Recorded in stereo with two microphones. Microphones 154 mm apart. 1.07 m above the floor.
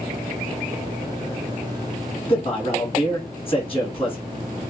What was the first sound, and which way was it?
A man speaking, 35° left (ahead or behind).